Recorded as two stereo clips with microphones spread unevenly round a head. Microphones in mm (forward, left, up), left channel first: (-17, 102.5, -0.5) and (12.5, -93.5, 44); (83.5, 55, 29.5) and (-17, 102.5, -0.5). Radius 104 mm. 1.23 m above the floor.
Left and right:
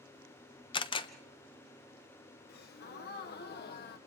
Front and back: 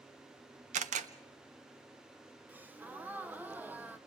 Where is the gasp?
90° left, 1.1 m.